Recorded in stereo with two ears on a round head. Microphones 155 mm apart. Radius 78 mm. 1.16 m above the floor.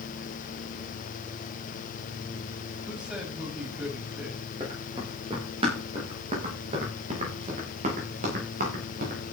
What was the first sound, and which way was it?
A man speaking, 5° right (ahead or behind).